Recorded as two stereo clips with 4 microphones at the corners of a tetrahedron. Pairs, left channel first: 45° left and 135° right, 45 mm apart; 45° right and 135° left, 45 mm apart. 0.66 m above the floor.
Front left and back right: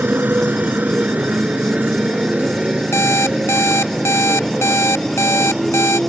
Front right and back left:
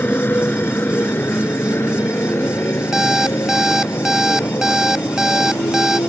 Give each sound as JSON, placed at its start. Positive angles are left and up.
{"t": 0.0, "sound": "a motorcycle", "azimuth_deg": -90}
{"t": 2.9, "sound": "an alarm clock", "azimuth_deg": 55}